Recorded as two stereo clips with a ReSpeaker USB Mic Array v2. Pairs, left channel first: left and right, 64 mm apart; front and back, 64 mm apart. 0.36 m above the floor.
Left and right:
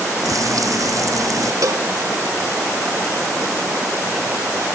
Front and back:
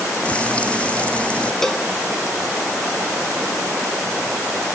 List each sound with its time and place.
0.2 s frying: 70° right
1.6 s a cowbell: 80° right